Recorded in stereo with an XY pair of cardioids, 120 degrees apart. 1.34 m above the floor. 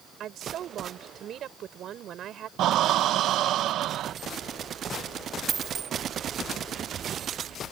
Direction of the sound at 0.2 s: 55° right.